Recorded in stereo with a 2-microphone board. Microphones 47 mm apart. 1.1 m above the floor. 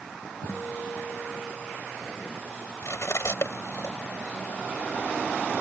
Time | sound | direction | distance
0.5 | a guitar | 60° left (ahead or behind) | ?
2.8 | cutlery clinking | 70° left (ahead or behind) | ?